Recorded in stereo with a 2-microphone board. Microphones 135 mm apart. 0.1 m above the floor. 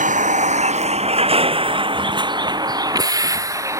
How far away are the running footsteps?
I don't hear running footsteps.